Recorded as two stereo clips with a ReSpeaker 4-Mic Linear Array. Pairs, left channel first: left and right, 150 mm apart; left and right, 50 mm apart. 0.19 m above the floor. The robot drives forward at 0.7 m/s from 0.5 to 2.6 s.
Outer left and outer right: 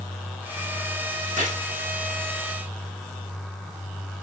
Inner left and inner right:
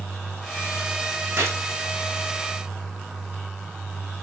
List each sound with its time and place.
1.4 s a gunshot: 60° right (ahead or behind), 6 m